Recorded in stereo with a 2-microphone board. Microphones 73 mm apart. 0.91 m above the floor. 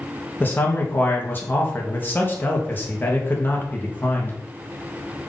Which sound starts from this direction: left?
A man speaking, at 0.4 s.